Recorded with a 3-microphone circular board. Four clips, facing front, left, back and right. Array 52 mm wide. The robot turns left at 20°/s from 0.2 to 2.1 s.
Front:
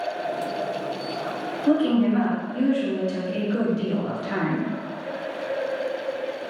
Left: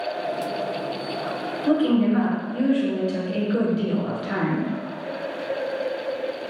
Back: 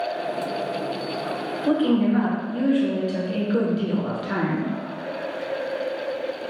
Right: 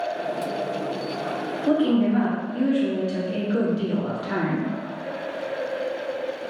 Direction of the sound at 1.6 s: 155° left.